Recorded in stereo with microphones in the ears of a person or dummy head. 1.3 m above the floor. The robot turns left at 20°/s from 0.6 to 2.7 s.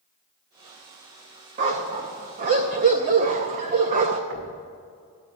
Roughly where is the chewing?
No chewing in this recording.